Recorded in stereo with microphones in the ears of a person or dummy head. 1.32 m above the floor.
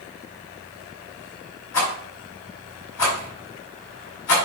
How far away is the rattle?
About 4 m.